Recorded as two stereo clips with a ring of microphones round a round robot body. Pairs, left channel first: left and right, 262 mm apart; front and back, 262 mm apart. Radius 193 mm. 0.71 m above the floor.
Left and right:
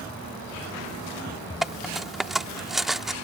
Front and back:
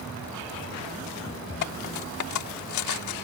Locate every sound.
1.6 s cutlery clinking: straight ahead